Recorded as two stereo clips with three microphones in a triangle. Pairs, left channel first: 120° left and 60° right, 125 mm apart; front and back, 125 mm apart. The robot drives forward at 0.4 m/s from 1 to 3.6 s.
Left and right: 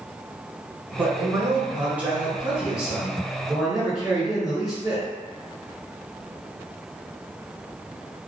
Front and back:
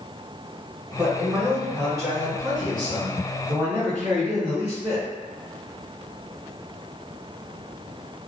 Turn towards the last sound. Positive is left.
turn(degrees=-150)